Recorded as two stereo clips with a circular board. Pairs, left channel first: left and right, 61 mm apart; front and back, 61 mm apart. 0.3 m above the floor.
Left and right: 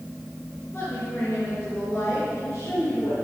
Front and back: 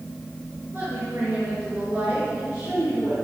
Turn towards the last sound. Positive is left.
turn(degrees=135)